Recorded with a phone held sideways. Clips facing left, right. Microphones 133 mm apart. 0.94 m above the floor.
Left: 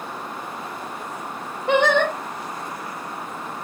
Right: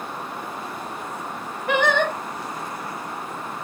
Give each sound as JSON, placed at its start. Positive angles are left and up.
{"t": 1.7, "sound": "singing", "side_deg": 25, "distance_m": 1.1}